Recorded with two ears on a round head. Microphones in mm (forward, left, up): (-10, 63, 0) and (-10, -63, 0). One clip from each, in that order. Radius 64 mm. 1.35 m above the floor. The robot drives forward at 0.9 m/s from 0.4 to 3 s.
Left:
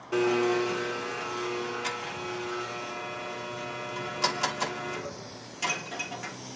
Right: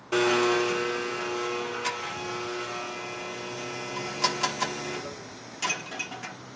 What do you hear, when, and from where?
0.1 s a blender: 40° right (ahead or behind), 0.6 m; by 6.4 s 10° right (ahead or behind), 3 m